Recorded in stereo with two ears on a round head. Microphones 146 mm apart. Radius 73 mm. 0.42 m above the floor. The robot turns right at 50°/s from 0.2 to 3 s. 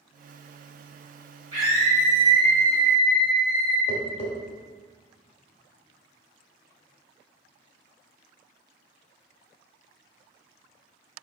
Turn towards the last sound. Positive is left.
turn(degrees=35)  # may be behind; listen again after turning